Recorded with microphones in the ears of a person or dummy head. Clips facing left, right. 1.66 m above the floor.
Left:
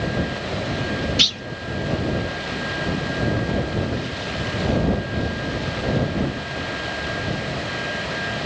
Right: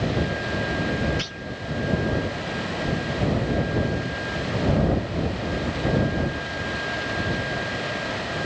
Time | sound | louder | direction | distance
1.2 | a clunk | left 5 dB | 45° left (ahead or behind) | ?